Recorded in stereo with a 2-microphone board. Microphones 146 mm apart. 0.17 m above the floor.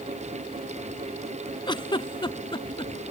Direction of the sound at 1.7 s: 35° left (ahead or behind).